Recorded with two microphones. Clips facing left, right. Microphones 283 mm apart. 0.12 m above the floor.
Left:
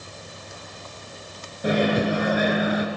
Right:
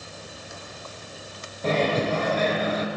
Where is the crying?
I don't hear crying.